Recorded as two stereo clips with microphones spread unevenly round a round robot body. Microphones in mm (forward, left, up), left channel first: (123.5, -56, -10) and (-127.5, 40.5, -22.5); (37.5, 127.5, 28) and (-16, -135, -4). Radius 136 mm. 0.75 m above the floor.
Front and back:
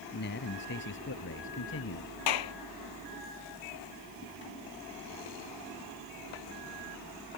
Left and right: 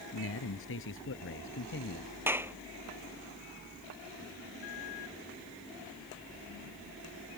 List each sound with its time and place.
0.1 s a man speaking: 35° left; by 2.1 s 25° left
2.3 s a clap: 20° right